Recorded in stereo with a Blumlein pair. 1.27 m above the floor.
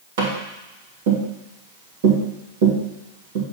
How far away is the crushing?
No crushing in this recording.